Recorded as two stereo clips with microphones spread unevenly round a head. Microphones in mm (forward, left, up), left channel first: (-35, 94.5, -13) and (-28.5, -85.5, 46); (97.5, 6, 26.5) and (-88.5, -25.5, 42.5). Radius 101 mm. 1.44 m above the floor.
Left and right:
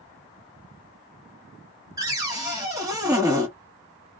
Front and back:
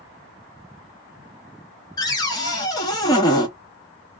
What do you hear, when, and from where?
2.0 s a cupboard door: 55° right, 0.8 m